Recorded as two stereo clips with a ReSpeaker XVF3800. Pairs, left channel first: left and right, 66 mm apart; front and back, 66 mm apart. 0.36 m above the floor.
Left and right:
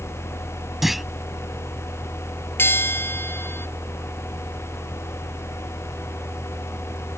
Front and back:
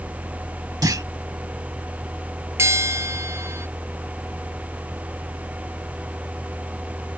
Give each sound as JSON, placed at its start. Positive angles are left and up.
{"t": 0.8, "sound": "a clunk", "azimuth_deg": -175}
{"t": 2.6, "sound": "a bell", "azimuth_deg": 140}